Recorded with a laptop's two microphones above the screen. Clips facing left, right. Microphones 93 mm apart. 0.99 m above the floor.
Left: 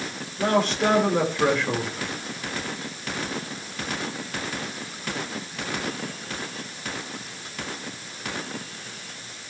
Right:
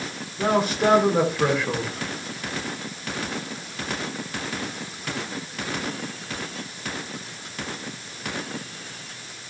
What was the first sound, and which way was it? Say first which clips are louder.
A man speaking: right 1 dB; 5° right (ahead or behind).